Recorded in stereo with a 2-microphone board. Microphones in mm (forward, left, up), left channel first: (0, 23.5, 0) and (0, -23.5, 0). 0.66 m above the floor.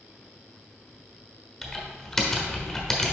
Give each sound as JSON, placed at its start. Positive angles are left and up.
{"t": 1.6, "sound": "typing on a keyboard", "side_deg": 10, "distance_m": 1.0}